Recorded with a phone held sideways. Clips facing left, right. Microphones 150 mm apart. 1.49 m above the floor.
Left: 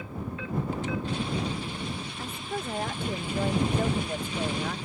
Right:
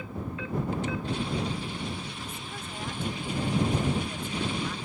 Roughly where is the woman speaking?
Left.